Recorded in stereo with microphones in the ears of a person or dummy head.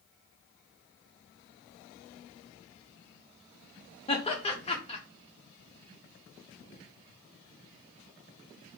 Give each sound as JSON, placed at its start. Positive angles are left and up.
{"t": 4.1, "sound": "laughter", "side_deg": 30, "distance_m": 0.8}